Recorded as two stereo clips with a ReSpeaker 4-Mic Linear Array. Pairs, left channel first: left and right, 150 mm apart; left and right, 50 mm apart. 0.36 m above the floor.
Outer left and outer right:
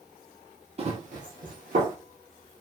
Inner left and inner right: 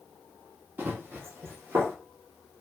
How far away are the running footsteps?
About 0.8 m.